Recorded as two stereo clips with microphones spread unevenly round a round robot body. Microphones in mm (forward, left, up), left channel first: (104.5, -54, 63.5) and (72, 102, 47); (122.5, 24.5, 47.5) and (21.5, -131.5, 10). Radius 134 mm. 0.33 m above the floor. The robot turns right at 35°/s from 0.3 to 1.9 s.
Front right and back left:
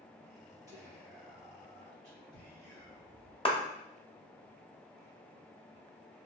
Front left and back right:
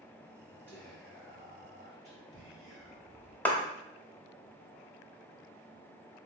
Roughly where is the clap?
Ahead right.